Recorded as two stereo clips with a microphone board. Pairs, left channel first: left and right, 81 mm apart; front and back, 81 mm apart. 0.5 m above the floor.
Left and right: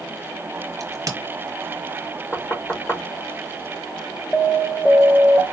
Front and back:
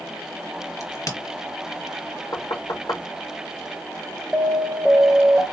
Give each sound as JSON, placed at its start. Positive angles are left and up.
{"t": 0.8, "sound": "a crack", "azimuth_deg": -45, "distance_m": 1.4}
{"t": 2.3, "sound": "knocking", "azimuth_deg": 25, "distance_m": 1.2}
{"t": 4.3, "sound": "an alarm", "azimuth_deg": 90, "distance_m": 0.9}